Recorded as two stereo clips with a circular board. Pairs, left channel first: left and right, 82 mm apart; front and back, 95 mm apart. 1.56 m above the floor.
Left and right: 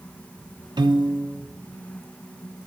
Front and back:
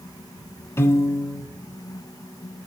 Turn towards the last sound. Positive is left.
turn(degrees=-65)